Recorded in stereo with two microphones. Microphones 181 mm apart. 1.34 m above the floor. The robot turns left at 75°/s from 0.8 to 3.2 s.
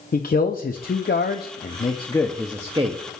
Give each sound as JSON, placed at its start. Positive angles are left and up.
{"t": 0.1, "sound": "a man speaking", "azimuth_deg": 120, "distance_m": 0.6}